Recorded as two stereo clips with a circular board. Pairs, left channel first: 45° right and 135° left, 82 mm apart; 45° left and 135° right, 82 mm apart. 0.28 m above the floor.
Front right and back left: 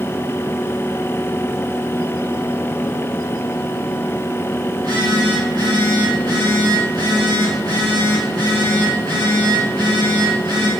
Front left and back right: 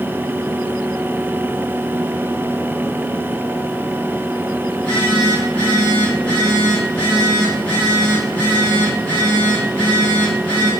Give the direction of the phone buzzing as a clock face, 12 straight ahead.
8 o'clock.